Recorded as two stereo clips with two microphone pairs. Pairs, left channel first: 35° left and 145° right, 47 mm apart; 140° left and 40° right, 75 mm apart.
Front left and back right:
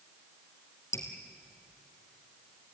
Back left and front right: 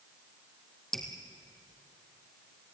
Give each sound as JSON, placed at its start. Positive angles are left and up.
{"t": 0.9, "sound": "dripping", "azimuth_deg": 60, "distance_m": 3.0}